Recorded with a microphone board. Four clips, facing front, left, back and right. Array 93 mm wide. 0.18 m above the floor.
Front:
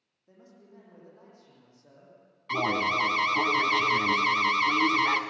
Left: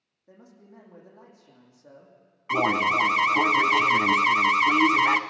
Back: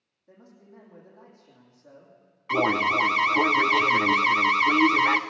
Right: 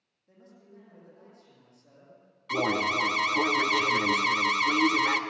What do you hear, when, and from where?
0.3 s a man speaking: 85° left, 8.5 m
2.5 s an alarm: 120° left, 1.1 m